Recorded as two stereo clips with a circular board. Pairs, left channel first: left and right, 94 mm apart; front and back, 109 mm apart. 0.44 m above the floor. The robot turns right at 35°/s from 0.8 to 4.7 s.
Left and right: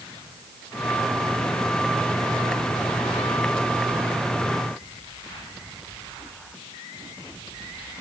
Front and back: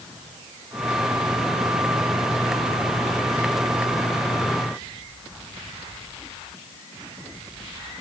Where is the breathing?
I don't hear breathing.